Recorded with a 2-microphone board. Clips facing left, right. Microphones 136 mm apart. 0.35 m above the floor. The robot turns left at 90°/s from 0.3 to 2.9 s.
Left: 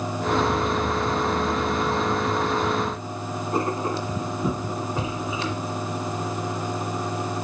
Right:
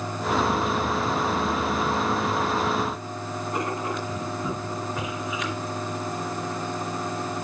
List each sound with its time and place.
3.5 s writing: 30° left (ahead or behind), 2 m